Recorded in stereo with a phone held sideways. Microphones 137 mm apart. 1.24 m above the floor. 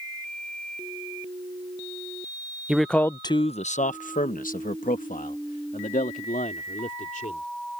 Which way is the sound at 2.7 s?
5° right (ahead or behind).